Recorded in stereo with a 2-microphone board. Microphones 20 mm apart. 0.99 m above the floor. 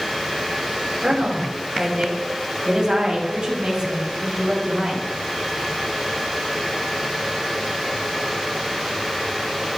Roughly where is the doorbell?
No doorbell in this recording.